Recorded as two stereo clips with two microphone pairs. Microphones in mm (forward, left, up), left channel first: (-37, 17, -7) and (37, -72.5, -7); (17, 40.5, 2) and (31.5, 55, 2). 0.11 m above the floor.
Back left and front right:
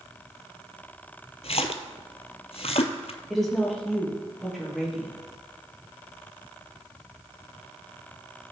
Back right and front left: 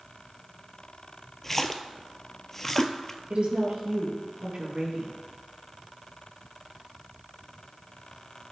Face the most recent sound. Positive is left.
turn(degrees=40)